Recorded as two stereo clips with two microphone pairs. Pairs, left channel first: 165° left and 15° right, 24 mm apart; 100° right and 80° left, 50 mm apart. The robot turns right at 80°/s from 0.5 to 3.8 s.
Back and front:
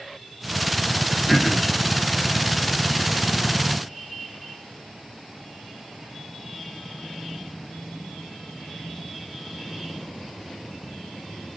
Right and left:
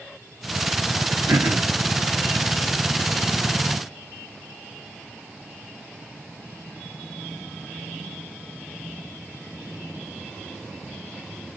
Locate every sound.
1.3 s throat clearing: 75° left, 1.9 m; by 1.8 s 115° left, 1.9 m